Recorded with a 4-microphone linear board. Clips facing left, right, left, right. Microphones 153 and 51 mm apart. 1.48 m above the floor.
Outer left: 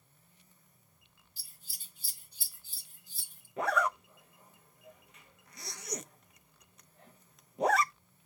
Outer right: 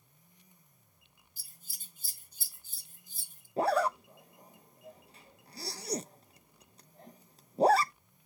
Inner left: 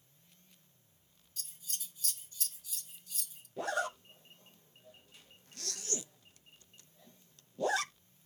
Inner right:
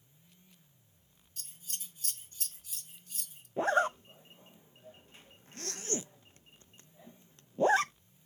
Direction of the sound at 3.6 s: 35° right (ahead or behind).